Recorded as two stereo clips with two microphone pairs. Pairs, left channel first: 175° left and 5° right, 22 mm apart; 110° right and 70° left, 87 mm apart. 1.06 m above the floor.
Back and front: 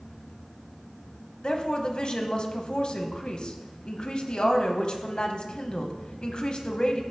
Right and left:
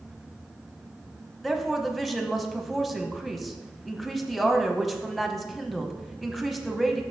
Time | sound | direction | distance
1.4 | a woman speaking | 165° left | 0.9 m